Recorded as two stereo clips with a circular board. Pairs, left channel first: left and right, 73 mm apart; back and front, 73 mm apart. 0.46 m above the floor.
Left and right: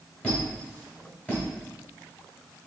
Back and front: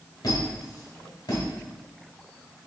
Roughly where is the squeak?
Behind.